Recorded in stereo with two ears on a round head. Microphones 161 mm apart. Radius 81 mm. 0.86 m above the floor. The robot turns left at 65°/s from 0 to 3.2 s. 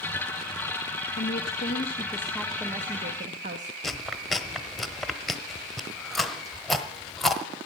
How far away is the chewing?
About 0.9 m.